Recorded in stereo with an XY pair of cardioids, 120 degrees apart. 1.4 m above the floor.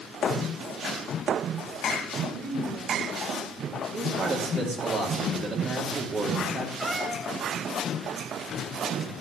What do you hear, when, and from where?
2.3 s a woman speaking: 40° right, 5 m; by 3.8 s 30° right, 5 m
3.9 s a man speaking: 40° right, 3.5 m
6.8 s a cat meowing: 5° right, 2.5 m